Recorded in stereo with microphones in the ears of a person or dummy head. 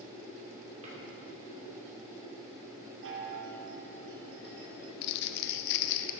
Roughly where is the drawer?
Right.